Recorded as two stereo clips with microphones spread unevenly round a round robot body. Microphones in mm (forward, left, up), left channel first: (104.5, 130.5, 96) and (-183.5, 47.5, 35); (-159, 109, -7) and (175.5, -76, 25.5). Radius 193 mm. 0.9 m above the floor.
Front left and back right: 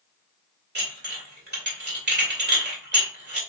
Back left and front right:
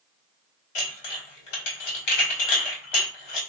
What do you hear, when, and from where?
0.8 s dishes clattering: 140° left, 2 m